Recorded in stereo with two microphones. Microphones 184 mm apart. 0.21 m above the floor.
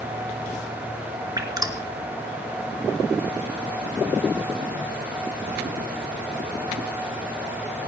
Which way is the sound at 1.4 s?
20° right (ahead or behind).